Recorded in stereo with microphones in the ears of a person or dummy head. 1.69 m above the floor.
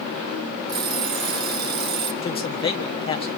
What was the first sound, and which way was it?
An alarm clock, 60° right (ahead or behind).